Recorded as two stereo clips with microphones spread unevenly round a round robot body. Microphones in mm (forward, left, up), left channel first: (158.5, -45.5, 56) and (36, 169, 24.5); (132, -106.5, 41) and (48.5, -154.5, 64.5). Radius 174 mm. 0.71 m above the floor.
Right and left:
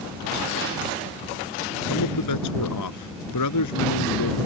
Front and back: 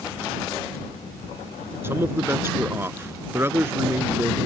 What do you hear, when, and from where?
1.8 s a man speaking: 85° right